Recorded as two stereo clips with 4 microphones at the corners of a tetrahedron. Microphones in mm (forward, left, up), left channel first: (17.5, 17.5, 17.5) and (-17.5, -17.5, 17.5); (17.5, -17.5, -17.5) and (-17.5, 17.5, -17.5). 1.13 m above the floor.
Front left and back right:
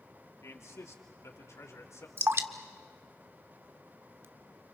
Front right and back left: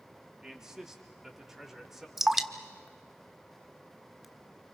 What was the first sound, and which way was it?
A man speaking, 55° left.